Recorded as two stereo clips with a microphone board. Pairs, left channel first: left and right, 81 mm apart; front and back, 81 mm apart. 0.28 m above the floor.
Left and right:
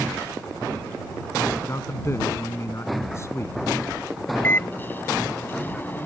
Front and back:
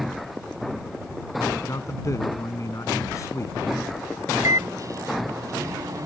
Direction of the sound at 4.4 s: 150° left.